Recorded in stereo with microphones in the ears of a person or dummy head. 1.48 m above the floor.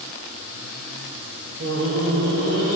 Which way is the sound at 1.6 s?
50° right (ahead or behind).